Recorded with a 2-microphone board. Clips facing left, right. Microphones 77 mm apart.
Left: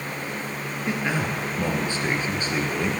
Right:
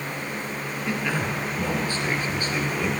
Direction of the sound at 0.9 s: 20° left (ahead or behind).